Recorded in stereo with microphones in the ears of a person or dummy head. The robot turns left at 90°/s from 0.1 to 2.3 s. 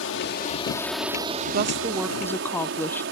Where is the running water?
80° left; by 3.1 s 115° right.